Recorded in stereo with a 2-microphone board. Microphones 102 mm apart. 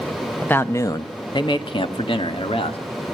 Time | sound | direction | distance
0.4 | a man speaking | 15° left (ahead or behind) | 0.8 m